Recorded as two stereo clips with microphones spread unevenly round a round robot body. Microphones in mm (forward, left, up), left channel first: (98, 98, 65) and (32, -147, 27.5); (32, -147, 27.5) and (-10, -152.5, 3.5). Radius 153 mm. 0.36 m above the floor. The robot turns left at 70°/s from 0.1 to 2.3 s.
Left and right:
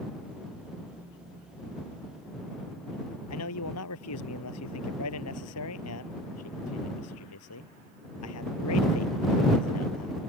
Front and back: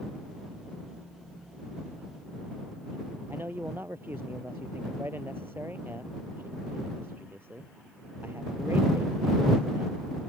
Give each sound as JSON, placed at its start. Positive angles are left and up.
{"t": 3.3, "sound": "a man speaking", "azimuth_deg": 115}